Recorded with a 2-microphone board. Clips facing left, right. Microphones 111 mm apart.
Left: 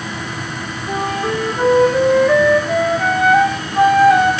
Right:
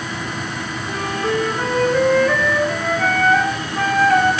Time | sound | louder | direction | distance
0.9 | a flute | left 2 dB | 15° left (ahead or behind) | 6 m